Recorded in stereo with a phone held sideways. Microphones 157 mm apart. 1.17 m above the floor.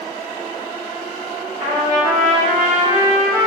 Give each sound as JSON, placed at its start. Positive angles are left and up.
{"t": 1.6, "sound": "a trumpet", "side_deg": -60, "distance_m": 1.7}